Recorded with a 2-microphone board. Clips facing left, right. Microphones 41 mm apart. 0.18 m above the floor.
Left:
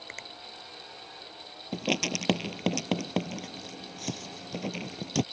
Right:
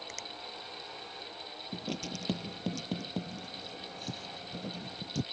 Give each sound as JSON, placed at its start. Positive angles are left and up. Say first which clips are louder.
{"t": 0.1, "sound": "a finger snap", "louder": "left 2 dB", "side_deg": 30}
{"t": 1.7, "sound": "writing", "louder": "left 10 dB", "side_deg": 70}